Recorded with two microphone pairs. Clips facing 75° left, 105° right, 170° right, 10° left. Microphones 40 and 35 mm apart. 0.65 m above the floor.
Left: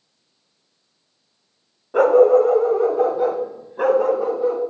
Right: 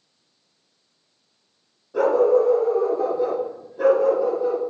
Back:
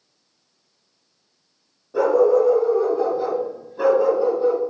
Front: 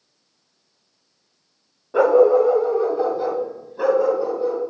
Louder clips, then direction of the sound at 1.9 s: Left 5 dB, front 2 dB; 50° left.